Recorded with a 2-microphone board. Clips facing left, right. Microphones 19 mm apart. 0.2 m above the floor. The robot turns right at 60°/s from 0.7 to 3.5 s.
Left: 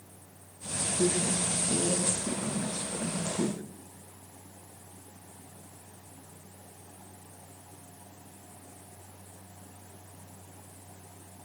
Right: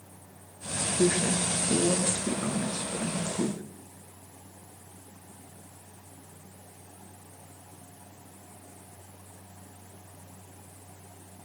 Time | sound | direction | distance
1.0 | a woman speaking | 130° right | 3 m